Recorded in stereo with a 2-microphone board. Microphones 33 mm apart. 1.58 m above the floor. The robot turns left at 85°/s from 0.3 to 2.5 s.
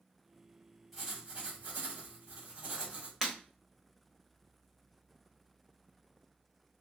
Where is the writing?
5° left, 1.8 m; by 3.1 s 130° right, 1.8 m.